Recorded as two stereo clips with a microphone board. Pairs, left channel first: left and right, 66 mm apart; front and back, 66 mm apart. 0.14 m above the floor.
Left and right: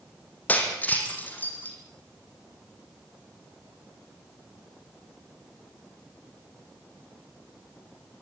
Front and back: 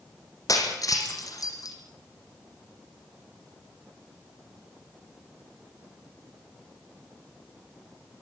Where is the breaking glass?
25° left, 4.5 m.